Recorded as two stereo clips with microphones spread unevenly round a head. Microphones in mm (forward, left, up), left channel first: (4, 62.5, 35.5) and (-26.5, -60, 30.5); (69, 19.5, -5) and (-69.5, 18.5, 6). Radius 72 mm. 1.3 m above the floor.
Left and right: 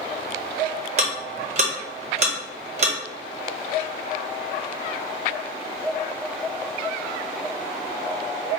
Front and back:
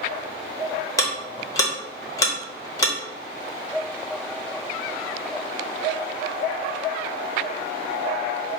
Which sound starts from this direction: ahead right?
Ticking, at 1.0 s.